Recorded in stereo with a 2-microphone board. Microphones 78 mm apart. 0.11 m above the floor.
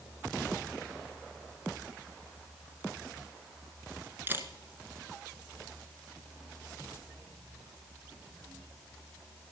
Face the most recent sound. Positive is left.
turn(degrees=-25)  # may be behind; listen again after turning